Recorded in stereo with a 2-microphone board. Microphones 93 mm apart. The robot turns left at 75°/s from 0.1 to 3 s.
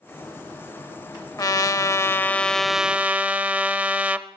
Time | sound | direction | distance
1.4 | a trumpet | 95° left | 0.5 m